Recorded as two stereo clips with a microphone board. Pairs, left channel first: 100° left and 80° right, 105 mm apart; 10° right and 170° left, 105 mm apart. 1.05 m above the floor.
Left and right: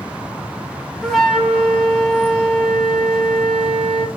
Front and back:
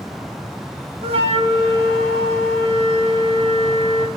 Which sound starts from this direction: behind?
A flute, at 1.0 s.